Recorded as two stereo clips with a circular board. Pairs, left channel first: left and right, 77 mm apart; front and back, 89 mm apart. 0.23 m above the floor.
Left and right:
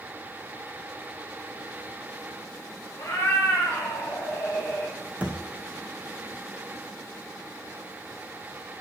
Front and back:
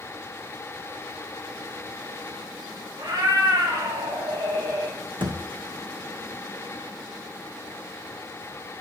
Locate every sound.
3.0 s a cat meowing: 145° left, 7 m; by 5.0 s 155° left, 5 m
5.2 s a thud: 160° right, 2 m